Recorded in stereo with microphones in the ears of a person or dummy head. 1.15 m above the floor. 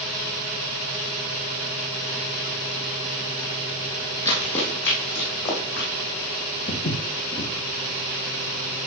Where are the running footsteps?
25° left (ahead or behind), 2.5 m; by 5.9 s 50° left (ahead or behind), 3.5 m.